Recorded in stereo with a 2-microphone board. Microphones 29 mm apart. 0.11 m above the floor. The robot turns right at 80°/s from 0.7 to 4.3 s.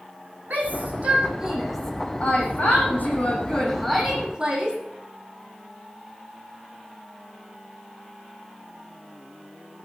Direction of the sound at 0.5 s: 75° right (ahead or behind).